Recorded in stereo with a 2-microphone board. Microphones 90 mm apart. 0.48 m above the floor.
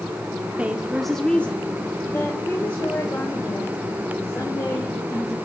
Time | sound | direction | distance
0.6 | a woman speaking | 15° right (ahead or behind) | 0.7 m